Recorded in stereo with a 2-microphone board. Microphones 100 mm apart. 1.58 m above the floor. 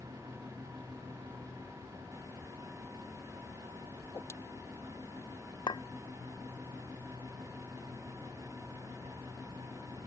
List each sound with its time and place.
4.0 s a whoosh: 25° left (ahead or behind)
5.7 s a clink: 50° left (ahead or behind)